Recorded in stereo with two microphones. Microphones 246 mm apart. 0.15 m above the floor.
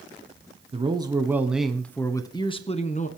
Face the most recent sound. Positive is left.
turn(degrees=30)  # may be behind; listen again after turning